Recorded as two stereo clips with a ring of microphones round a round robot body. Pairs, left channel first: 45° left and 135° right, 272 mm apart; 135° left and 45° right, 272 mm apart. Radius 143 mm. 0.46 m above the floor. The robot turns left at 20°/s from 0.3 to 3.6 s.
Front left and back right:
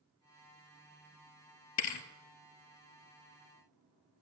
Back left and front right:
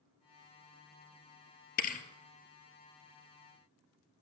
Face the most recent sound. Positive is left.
turn(degrees=40)